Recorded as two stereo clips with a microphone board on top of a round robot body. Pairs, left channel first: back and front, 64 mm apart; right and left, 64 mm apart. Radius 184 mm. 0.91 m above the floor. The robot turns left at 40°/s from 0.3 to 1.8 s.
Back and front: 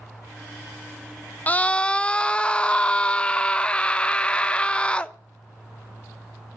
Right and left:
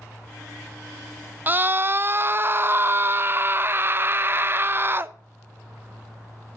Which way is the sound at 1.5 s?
130° left.